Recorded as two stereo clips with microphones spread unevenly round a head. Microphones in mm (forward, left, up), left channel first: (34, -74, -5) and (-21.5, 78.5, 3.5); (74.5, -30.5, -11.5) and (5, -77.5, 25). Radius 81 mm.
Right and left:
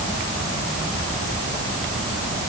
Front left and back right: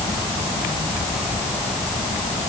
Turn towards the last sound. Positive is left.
No sound to turn to.